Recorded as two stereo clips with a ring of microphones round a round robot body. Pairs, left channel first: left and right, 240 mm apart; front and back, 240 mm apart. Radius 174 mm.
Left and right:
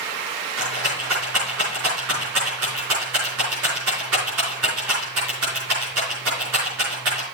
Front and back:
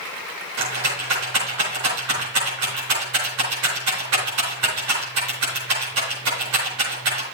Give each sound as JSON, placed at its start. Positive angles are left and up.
{"t": 0.6, "sound": "a rattle", "azimuth_deg": -135, "distance_m": 4.0}